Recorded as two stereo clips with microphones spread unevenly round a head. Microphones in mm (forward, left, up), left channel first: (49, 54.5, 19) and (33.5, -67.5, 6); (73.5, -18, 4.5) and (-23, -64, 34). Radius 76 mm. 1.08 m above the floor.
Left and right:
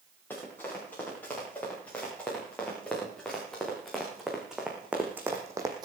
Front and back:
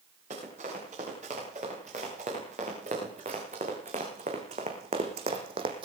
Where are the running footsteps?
160° left, 8 m; by 5.9 s 160° right, 1.9 m.